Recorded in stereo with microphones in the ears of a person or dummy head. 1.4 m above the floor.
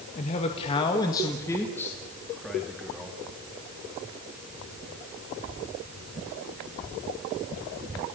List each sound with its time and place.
0.1 s a man speaking: 45° left (ahead or behind), 2 m; by 3.2 s 5° right (ahead or behind), 4 m